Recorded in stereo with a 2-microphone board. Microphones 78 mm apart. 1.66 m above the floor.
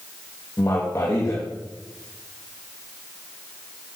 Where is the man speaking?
35° left (ahead or behind), 2.5 m.